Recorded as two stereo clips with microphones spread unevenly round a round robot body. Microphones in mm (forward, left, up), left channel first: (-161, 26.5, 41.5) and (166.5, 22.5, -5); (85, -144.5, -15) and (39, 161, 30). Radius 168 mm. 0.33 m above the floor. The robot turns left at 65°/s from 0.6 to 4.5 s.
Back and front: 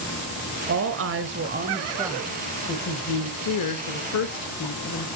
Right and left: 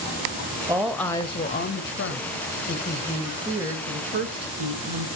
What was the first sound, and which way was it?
A woman speaking, 15° left.